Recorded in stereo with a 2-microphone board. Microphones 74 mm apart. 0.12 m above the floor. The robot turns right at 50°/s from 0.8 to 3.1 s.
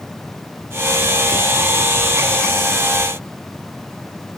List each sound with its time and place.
Only background noise.